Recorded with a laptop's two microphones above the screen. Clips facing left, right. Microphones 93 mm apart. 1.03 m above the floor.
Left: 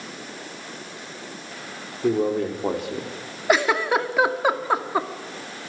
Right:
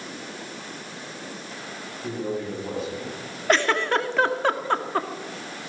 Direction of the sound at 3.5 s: 10° left (ahead or behind).